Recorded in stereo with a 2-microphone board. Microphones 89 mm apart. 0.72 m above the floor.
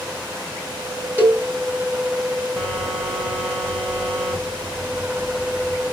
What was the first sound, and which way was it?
A cowbell, 20° right (ahead or behind).